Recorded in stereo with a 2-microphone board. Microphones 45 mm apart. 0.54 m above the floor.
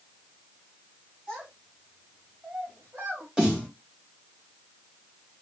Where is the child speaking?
20° right (ahead or behind), 2.5 m; by 3.3 s 50° right (ahead or behind), 2.5 m.